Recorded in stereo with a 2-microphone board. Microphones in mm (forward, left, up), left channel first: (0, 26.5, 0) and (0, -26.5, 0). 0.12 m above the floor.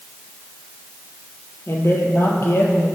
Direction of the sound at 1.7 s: 55° left (ahead or behind).